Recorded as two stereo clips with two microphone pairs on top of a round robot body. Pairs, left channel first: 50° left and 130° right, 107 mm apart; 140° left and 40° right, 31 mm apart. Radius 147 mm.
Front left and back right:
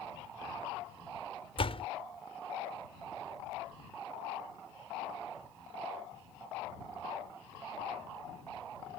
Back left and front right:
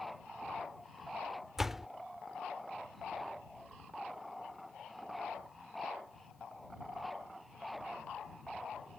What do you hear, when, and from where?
1.6 s a door slam: 40° left